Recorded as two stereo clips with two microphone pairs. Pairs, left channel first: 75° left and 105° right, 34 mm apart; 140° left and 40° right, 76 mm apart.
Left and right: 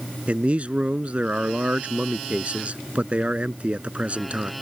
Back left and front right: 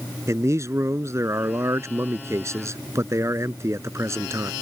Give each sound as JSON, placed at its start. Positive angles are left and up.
{"t": 0.3, "sound": "a man speaking", "azimuth_deg": -75}